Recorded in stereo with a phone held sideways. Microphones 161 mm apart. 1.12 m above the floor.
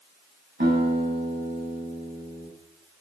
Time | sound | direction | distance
0.6 | a guitar | 85° right | 8.5 m